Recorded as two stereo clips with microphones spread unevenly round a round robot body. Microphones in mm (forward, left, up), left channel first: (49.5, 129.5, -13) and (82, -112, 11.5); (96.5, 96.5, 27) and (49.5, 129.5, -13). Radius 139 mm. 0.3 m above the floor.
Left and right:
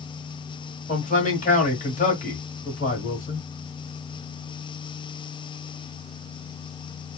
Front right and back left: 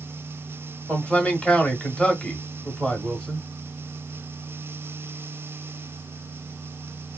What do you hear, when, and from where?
0.9 s a man speaking: 85° left, 1.3 m